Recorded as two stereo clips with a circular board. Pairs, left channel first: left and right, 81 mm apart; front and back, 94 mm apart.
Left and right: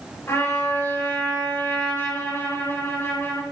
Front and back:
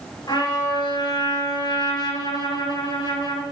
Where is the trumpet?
35° left, 5 m.